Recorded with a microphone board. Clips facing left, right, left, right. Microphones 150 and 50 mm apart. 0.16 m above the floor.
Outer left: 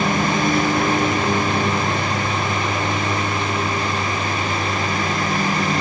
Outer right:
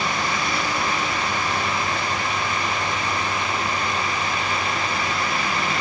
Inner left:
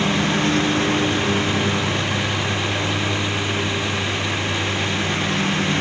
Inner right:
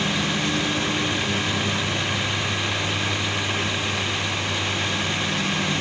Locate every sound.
0.0 s a lawn mower: 50° left (ahead or behind); by 5.8 s 45° left (ahead or behind)